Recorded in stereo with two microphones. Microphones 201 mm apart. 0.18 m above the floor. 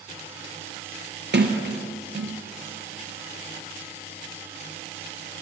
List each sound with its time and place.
1.3 s a sliding door: 60° right (ahead or behind), 1.3 m